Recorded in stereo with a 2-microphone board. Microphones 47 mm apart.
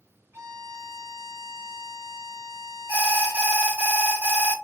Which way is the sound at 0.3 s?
75° right (ahead or behind).